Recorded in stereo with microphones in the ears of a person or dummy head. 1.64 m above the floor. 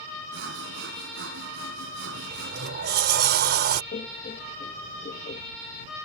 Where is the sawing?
65° right (ahead or behind).